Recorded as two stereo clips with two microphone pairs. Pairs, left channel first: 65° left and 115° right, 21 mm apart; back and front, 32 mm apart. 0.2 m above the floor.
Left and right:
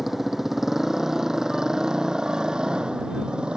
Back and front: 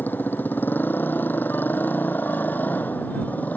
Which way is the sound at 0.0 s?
165° left.